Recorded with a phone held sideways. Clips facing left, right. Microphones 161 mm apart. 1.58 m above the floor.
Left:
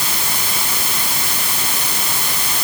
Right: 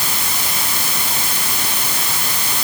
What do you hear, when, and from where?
Only background noise.